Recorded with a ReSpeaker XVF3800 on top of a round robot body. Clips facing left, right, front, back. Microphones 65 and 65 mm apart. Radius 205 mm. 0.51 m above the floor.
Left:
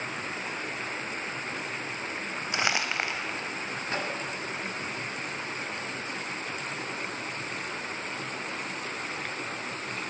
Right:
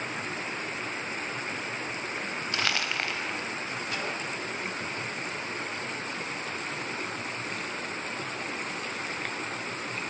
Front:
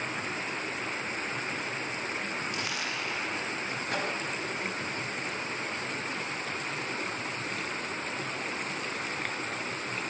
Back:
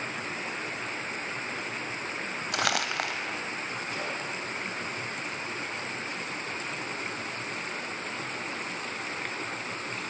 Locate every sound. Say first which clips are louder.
2.5 s crumpling: left 2 dB, back 5 dB; 165° left, 2.5 m
3.9 s a microwave: left 3 dB, front 4 dB; 30° left, 4 m